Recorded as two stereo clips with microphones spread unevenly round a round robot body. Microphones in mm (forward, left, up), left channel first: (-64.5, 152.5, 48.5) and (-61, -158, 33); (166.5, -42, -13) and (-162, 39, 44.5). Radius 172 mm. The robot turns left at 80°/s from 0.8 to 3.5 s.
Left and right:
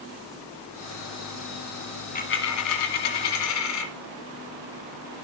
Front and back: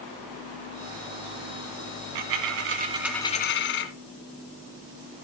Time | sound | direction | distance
2.1 | a dropped coin | 155° left | 1.6 m